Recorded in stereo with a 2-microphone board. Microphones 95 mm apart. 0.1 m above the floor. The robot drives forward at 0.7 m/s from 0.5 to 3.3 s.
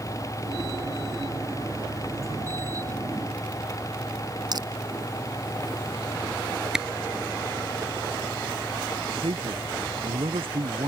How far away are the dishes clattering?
No dishes clattering in this recording.